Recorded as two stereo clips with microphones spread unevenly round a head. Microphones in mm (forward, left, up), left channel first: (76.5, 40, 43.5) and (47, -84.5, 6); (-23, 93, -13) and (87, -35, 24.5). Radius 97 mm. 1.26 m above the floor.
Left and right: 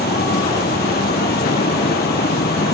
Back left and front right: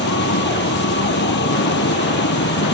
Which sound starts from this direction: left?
A vehicle, at 0.0 s.